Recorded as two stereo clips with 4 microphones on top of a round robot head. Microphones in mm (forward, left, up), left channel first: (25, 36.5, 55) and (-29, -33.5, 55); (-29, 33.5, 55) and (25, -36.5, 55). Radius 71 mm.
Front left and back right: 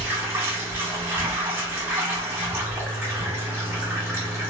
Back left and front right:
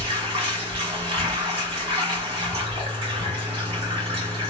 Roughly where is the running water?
Ahead right.